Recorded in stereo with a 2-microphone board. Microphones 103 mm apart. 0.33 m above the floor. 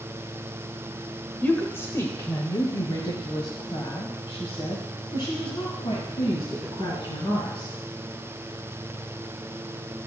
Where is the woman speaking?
15° left (ahead or behind), 1.0 m; by 7.7 s 45° left (ahead or behind), 3.5 m.